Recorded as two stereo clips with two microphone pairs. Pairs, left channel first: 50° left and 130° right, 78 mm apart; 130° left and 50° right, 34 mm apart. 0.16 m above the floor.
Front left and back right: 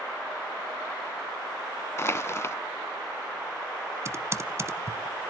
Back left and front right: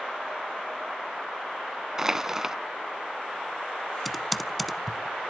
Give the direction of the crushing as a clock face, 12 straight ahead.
11 o'clock.